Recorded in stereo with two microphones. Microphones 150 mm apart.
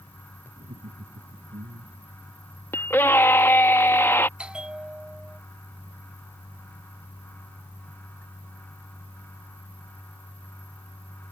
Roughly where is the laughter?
Right.